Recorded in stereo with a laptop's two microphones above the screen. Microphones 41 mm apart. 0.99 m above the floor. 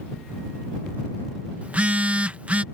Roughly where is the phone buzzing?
Right.